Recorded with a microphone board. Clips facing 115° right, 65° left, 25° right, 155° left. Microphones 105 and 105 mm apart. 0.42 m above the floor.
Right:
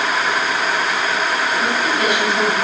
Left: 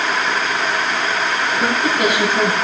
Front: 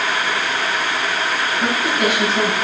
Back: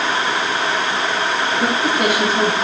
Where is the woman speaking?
105° left, 4 m.